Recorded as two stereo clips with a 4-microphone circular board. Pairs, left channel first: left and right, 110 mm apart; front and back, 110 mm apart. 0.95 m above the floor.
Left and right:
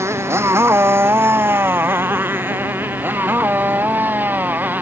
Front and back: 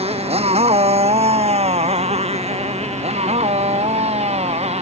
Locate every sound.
0.0 s a motorcycle: 155° right; by 4.8 s 165° right